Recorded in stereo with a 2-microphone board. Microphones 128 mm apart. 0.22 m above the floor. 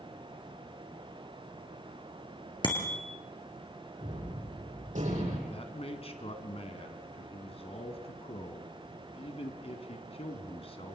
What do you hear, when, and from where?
2.6 s a bicycle bell: 40° left (ahead or behind), 3 m
4.0 s a gunshot: 80° right, 8.5 m
5.5 s a man speaking: 50° left (ahead or behind), 2 m